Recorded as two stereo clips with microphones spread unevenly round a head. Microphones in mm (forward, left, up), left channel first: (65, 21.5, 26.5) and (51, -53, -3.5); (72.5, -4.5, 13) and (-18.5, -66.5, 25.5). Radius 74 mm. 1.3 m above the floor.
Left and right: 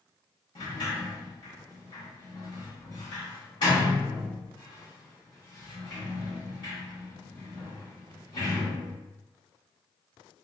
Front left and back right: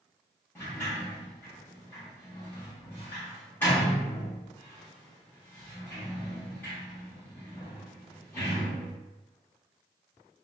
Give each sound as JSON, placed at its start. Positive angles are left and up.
{"t": 0.6, "sound": "a sliding door", "azimuth_deg": 110, "distance_m": 1.5}